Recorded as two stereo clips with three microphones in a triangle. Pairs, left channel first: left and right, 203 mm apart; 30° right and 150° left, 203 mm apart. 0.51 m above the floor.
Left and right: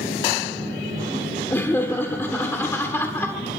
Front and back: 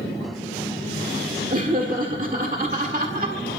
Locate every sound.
1.5 s laughter: 160° left, 1.5 m